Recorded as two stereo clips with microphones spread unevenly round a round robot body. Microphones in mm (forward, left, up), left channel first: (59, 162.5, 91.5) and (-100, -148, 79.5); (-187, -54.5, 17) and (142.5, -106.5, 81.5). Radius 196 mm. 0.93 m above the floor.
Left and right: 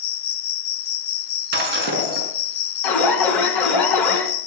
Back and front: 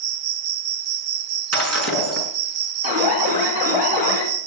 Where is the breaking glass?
55° right, 5.5 m.